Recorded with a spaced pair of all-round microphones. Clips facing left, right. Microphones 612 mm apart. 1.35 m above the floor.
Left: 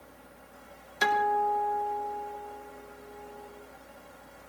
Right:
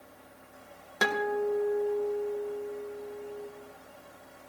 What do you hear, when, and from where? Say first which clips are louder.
0.0 s a fan: left 1 dB; 70° left (ahead or behind), 2 m
1.0 s a guitar: right 2 dB; 70° right (ahead or behind), 1.5 m